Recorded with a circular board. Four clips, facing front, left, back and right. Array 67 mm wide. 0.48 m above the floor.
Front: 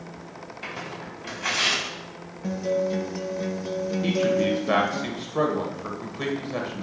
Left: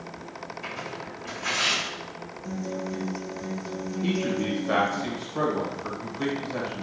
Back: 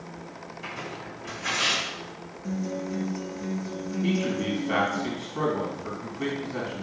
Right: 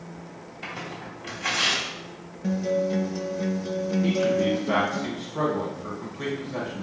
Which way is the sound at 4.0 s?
5° left.